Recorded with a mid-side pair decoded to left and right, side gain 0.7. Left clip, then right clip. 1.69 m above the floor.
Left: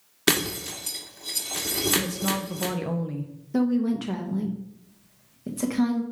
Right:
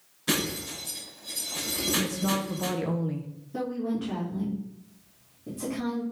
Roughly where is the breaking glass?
Ahead left.